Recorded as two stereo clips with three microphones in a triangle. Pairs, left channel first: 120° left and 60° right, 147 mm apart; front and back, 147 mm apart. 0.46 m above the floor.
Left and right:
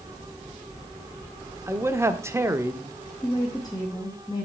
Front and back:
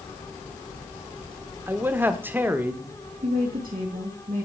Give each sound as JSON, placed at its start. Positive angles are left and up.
{"t": 1.7, "sound": "a man speaking", "azimuth_deg": -115, "distance_m": 0.9}
{"t": 3.2, "sound": "a woman speaking", "azimuth_deg": 180, "distance_m": 2.5}